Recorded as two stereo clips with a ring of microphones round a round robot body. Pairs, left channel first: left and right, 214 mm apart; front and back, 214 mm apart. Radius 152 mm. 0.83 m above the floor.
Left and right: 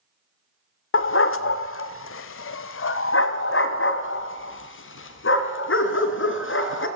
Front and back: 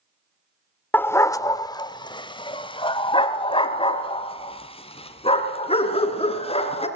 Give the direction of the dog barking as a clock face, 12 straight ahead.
9 o'clock.